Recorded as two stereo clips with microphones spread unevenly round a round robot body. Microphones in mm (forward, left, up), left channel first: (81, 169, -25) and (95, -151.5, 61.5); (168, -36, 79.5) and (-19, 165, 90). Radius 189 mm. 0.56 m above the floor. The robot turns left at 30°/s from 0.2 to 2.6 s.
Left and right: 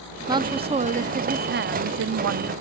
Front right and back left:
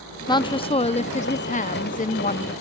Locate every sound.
0.3 s a woman speaking: 10° left, 0.6 m; by 2.5 s 60° right, 0.6 m